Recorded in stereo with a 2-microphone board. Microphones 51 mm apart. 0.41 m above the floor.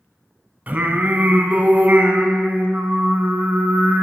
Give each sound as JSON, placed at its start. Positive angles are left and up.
{"t": 0.7, "sound": "singing", "side_deg": -35, "distance_m": 0.9}